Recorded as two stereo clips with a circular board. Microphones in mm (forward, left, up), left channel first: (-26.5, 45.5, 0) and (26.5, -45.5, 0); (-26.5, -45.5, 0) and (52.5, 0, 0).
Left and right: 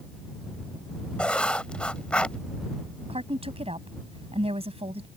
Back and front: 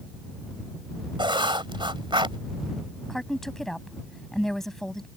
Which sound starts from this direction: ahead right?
A woman speaking, at 3.1 s.